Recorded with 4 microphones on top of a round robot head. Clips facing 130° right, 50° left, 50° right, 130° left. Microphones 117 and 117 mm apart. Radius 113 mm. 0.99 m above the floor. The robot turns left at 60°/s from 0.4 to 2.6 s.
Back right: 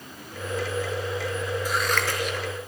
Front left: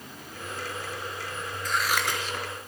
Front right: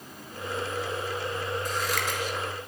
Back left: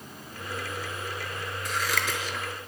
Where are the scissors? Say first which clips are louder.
Front left 2 dB, front right 1 dB; 150° left, 5 m; by 2.7 s 95° left, 5 m.